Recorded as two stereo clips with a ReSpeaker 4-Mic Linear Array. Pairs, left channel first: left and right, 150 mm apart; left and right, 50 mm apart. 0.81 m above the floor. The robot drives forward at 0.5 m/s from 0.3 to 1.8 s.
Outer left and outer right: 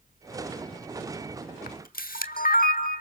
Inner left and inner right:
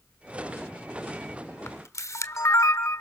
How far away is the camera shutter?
About 1.3 m.